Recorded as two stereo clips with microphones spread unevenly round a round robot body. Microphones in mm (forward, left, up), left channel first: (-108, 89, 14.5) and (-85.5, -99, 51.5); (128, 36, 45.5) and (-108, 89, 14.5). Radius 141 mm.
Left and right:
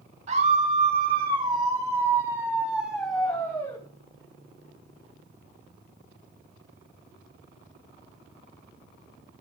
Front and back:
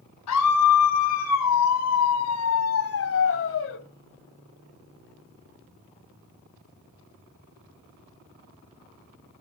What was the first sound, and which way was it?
A scream, 15° right.